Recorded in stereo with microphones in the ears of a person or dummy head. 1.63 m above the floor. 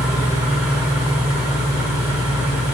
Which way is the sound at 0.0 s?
10° right (ahead or behind).